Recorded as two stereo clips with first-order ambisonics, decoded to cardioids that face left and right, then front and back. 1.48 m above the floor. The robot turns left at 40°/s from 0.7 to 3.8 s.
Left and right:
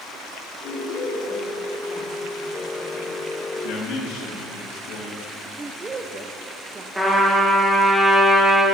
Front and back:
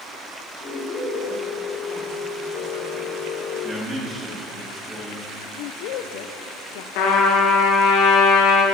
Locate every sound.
0.6 s a woman speaking: 85° left, 4 m; by 3.2 s 20° right, 4 m
3.6 s a man speaking: 110° left, 3 m; by 5.3 s 105° left, 3 m
5.6 s a woman speaking: 15° right, 0.6 m
7.0 s a trumpet: 10° right, 1.8 m